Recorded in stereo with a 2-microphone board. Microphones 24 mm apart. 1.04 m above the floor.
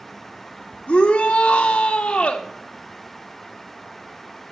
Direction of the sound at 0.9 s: 70° left (ahead or behind).